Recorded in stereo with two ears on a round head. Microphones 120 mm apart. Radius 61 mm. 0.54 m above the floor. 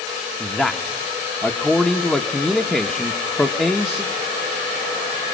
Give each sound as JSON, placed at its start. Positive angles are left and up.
{"t": 0.4, "sound": "a man speaking", "side_deg": 5, "distance_m": 0.9}